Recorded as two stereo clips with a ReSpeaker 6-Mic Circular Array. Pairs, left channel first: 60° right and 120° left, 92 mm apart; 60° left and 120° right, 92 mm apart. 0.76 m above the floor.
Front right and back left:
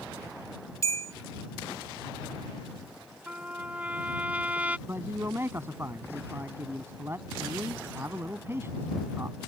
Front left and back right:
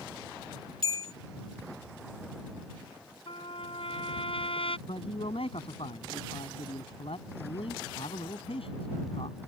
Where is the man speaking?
55° left.